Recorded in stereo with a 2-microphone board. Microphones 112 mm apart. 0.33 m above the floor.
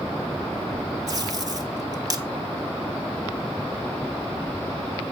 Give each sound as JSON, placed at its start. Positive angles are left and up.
{"t": 1.1, "sound": "tape being pulled", "side_deg": -30, "distance_m": 1.9}